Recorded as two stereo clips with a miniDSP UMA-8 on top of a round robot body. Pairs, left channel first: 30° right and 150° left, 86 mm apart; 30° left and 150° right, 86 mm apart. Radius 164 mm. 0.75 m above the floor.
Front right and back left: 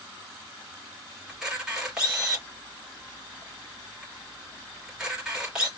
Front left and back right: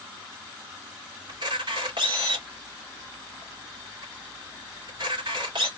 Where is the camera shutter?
130° right, 3 m.